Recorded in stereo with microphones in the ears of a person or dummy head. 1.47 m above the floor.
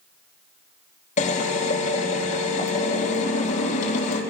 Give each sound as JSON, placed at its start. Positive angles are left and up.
{"t": 1.2, "sound": "a drill", "side_deg": 40, "distance_m": 3.5}